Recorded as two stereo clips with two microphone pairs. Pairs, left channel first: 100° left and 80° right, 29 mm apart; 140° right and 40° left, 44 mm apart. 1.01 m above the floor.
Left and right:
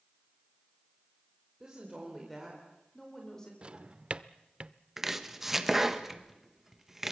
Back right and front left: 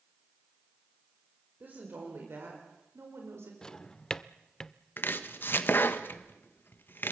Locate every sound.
1.6 s a woman speaking: 10° right, 4.5 m; by 3.5 s 30° left, 4 m
3.6 s a drawer: 85° right, 0.7 m
5.0 s chopping: 165° right, 1.3 m